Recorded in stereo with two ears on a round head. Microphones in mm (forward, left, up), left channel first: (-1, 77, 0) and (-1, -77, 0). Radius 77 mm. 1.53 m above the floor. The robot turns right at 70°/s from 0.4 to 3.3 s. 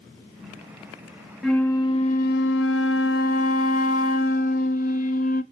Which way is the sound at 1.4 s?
Straight ahead.